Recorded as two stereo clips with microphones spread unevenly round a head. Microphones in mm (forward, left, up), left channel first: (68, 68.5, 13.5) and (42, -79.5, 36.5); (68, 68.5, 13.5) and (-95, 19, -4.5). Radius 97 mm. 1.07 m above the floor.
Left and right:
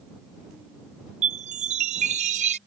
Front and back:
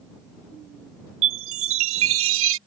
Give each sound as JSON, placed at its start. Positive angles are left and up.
{"t": 1.2, "sound": "a chime", "azimuth_deg": -155}